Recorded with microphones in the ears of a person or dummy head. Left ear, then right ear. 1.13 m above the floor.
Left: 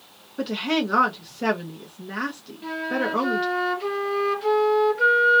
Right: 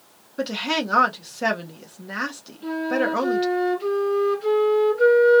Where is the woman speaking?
5° right (ahead or behind), 0.6 m.